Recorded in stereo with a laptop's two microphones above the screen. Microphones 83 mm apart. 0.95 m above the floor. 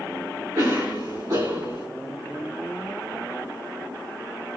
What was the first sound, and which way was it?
A cough, 60° right (ahead or behind).